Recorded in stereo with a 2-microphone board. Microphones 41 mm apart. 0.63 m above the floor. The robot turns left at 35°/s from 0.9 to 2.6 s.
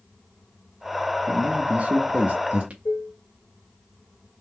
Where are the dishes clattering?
65° left (ahead or behind), 1.3 m.